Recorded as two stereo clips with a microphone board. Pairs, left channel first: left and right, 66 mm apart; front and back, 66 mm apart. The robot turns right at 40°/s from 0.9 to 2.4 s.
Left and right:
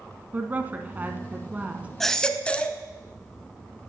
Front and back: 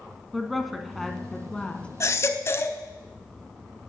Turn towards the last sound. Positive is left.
turn(degrees=25)